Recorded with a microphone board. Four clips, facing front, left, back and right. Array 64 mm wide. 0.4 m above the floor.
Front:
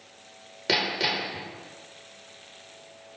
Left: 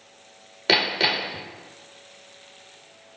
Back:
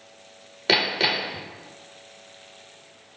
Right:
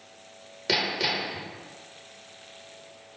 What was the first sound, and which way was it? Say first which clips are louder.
Hammering: left 5 dB, back 4 dB; 125° left.